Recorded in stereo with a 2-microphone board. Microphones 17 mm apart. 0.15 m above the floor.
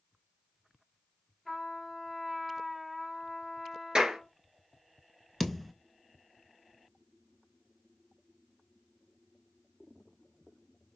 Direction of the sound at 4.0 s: 50° right (ahead or behind).